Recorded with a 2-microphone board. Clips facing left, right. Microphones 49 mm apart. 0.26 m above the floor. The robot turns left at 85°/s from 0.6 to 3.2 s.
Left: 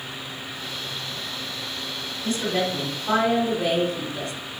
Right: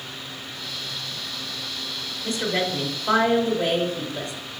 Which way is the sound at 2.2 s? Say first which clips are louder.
Even; 15° right (ahead or behind).